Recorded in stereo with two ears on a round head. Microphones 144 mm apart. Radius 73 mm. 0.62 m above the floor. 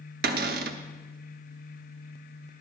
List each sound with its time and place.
0.2 s a cupboard door: 60° right (ahead or behind), 0.7 m